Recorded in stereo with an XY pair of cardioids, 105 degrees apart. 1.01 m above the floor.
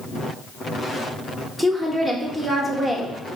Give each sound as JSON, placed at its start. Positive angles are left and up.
{"t": 1.6, "sound": "a woman speaking", "azimuth_deg": -15, "distance_m": 1.0}